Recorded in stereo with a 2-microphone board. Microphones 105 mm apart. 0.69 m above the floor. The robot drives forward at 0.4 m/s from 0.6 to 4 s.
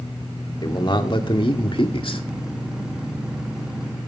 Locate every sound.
0.6 s a man speaking: 45° left (ahead or behind), 1.8 m; by 2.2 s 55° left (ahead or behind), 1.5 m